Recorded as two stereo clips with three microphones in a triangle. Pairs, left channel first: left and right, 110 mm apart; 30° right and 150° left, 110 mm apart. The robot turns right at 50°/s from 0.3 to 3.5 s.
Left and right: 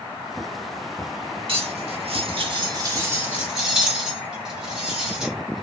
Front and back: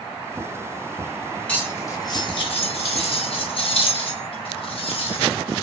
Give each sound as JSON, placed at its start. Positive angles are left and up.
{"t": 1.5, "sound": "cutlery clinking", "azimuth_deg": -110, "distance_m": 1.3}